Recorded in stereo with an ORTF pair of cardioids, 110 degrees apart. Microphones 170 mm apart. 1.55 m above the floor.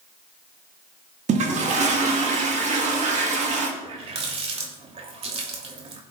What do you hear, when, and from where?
1.3 s a toilet flushing: 45° right, 2.5 m
3.8 s a running tap: 40° right, 2.5 m